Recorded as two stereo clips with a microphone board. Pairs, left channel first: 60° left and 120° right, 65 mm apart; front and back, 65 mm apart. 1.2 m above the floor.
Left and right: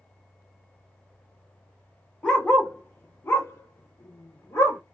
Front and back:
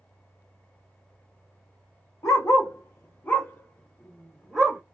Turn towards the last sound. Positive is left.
turn(degrees=95)